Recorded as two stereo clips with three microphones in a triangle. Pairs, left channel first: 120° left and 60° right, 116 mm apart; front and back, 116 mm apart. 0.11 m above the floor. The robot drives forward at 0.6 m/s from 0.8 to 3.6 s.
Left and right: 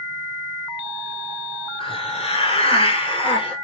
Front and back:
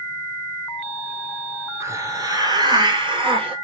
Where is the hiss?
120° left, 1.3 m; by 3.5 s 150° left, 2.0 m.